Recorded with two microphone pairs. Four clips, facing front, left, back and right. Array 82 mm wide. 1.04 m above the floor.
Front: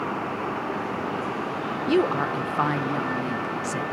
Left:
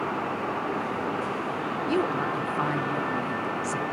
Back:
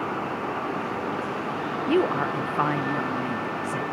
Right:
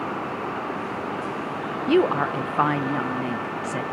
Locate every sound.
1.9 s a woman speaking: 90° right, 0.6 m